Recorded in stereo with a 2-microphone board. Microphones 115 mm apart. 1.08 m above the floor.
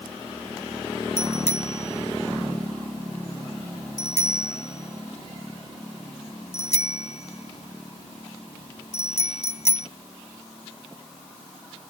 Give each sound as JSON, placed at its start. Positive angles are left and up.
{"t": 1.2, "sound": "a bicycle bell", "side_deg": 70}